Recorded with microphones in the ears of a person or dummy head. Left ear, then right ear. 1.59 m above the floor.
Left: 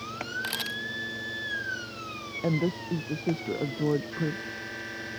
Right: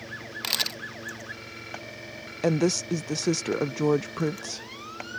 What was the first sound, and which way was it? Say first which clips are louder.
A camera shutter: right 8 dB; 35° right (ahead or behind).